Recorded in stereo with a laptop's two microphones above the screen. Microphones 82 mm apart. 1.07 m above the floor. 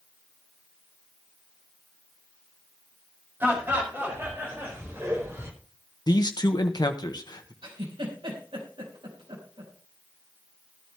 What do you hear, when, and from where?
3.4 s laughter: 25° right (ahead or behind), 6 m; by 5.5 s 35° right (ahead or behind), 4 m
6.1 s a man speaking: 55° left (ahead or behind), 1.2 m
7.6 s a giggle: 85° right, 4 m